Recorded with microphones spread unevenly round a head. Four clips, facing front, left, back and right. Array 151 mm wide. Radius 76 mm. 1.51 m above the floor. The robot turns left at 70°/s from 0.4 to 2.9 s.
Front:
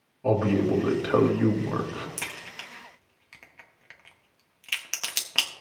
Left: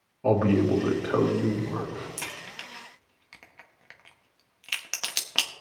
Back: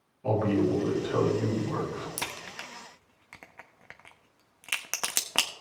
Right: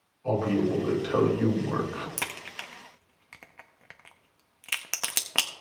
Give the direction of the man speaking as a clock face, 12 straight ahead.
10 o'clock.